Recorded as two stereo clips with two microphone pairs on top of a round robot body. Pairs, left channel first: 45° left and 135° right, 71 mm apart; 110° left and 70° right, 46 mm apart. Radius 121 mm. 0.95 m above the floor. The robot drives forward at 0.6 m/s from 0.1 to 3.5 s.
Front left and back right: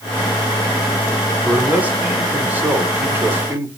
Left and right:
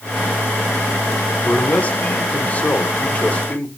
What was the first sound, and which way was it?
A man speaking, 155° left.